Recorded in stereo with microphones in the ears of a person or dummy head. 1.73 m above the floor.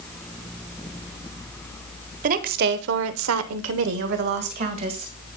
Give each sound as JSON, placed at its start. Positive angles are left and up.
{"t": 2.2, "sound": "a woman speaking", "side_deg": -45, "distance_m": 1.3}